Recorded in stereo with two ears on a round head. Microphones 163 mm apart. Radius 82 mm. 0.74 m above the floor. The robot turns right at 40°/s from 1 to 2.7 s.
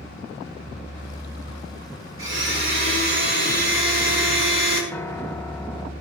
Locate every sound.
2.2 s a blender: 75° right (ahead or behind), 4.5 m; by 4.8 s 55° right (ahead or behind), 4.5 m
4.9 s a piano: 15° left (ahead or behind), 0.6 m